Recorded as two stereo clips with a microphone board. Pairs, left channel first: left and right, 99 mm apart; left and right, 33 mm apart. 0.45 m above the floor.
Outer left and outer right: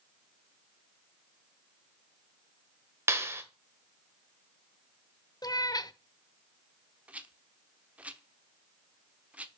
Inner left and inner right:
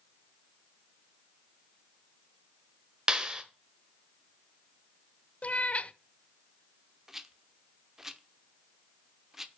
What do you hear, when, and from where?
3.1 s a clap: 25° right (ahead or behind), 1.2 m
5.4 s a cat meowing: 45° left (ahead or behind), 0.5 m
7.1 s a rattle: 15° right (ahead or behind), 0.7 m